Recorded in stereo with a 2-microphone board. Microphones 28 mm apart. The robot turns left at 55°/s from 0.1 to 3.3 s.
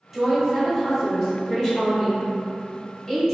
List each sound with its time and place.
0.1 s a woman speaking: 15° right (ahead or behind), 1.1 m; by 3.4 s 20° left (ahead or behind), 1.1 m